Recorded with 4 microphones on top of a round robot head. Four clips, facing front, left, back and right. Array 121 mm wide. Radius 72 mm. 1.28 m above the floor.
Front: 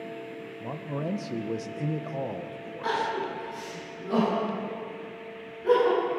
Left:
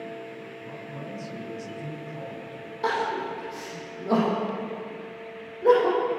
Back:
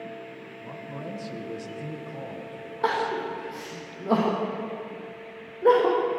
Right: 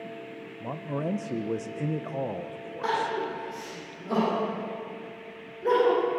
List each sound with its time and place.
0.6 s a man speaking: 65° right, 1.2 m
2.8 s crying: 160° left, 9 m